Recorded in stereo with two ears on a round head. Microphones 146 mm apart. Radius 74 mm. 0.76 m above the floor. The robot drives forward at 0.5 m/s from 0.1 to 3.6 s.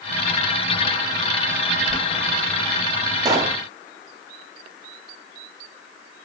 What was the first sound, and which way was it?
Boiling, 5° left (ahead or behind).